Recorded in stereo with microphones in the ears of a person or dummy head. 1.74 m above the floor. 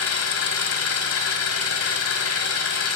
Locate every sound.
0.0 s an engine running: 60° left (ahead or behind), 2.5 m